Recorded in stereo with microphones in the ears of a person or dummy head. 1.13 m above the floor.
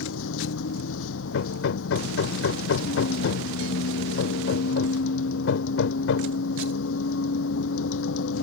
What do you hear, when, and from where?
0.0 s a vehicle: 80° left
1.3 s hammering: 75° left (ahead or behind)